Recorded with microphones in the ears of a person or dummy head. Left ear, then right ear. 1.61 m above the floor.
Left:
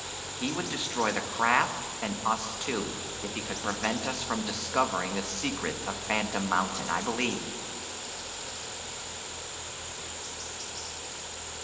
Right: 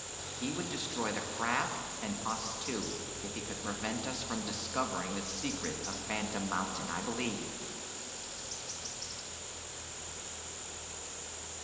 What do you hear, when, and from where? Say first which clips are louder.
0.4 s a man speaking: left 6 dB; 35° left (ahead or behind), 1.8 m